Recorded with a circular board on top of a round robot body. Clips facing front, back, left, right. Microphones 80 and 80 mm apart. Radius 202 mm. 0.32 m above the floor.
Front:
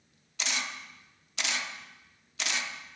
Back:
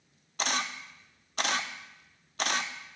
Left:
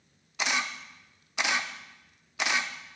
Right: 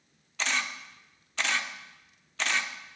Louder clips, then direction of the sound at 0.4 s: Back 4 dB, left 1 dB; 165° left.